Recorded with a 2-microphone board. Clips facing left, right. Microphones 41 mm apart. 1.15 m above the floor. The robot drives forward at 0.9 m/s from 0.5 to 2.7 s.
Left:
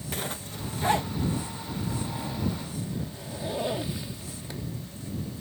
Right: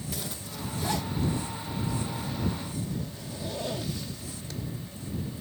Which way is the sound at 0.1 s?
45° left (ahead or behind).